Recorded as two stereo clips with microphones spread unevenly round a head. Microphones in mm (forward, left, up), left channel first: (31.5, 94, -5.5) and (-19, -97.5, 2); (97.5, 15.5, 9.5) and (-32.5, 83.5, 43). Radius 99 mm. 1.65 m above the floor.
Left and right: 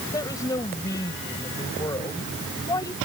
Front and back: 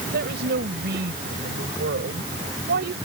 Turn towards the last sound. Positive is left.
turn(degrees=150)